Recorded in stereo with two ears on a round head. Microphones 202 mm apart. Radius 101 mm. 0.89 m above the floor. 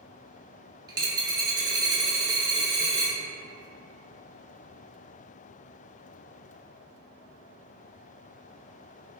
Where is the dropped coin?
15° right (ahead or behind), 0.5 m.